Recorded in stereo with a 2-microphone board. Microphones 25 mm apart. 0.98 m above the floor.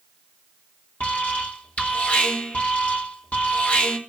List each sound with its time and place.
1.0 s an alarm: 75° left (ahead or behind), 3.5 m